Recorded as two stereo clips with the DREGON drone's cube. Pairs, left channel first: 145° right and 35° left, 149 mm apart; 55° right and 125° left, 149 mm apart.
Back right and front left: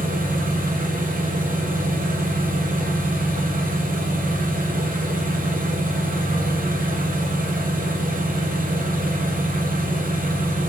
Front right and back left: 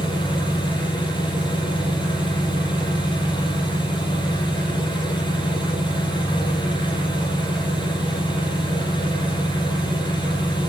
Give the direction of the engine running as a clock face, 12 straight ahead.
12 o'clock.